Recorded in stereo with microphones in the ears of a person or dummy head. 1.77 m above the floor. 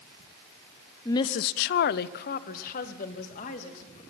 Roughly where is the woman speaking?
Centre.